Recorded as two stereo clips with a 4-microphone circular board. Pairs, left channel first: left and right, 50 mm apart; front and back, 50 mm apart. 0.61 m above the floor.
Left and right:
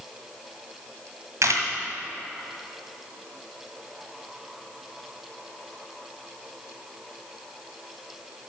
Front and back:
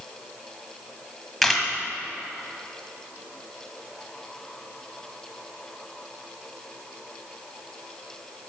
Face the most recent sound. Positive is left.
turn(degrees=-90)